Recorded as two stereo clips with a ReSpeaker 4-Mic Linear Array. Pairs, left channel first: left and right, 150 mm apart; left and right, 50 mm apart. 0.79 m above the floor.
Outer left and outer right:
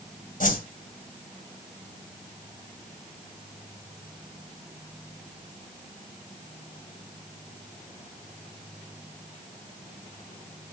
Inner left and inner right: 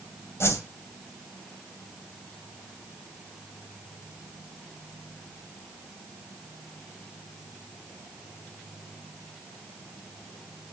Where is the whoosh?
65° left (ahead or behind), 2.5 m.